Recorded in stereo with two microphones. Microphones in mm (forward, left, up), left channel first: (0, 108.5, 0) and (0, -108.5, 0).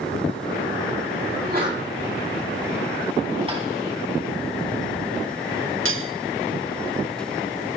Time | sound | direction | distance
1.3 | a sneeze | 45° right (ahead or behind) | 8 m
3.5 | tapping | 25° right (ahead or behind) | 3.5 m
5.8 | cutlery clinking | 70° right (ahead or behind) | 0.6 m